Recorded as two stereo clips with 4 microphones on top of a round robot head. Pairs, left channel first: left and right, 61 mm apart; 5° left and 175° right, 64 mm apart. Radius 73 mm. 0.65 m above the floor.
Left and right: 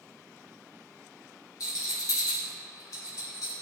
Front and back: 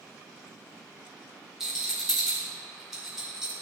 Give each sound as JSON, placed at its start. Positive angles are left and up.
{"t": 1.6, "sound": "a rattle", "azimuth_deg": 105, "distance_m": 2.5}